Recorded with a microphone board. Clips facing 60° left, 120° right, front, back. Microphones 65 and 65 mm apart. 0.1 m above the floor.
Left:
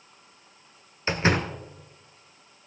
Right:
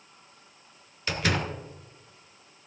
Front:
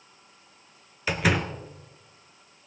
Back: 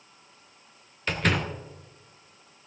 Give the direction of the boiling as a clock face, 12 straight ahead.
No boiling in this recording.